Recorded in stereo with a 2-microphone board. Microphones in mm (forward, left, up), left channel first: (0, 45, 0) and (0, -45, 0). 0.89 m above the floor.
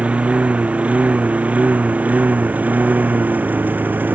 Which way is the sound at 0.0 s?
15° right (ahead or behind).